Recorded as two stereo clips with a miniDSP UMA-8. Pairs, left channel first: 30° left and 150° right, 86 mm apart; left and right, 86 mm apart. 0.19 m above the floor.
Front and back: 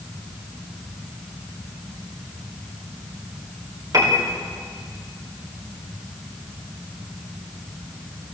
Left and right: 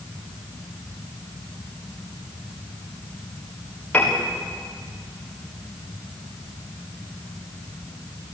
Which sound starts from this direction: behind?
A piano, at 3.9 s.